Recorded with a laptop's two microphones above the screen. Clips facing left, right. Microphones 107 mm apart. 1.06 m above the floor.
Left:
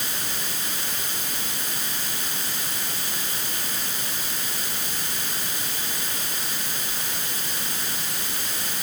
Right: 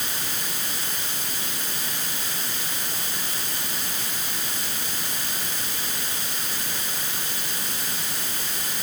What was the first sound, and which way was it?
Only background noise.